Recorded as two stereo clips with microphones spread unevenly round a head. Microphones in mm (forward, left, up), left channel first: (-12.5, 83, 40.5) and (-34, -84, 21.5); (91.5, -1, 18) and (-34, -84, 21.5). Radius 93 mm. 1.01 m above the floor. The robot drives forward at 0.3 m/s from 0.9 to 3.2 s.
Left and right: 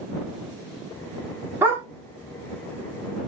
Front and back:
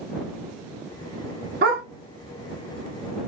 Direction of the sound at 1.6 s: 175° right.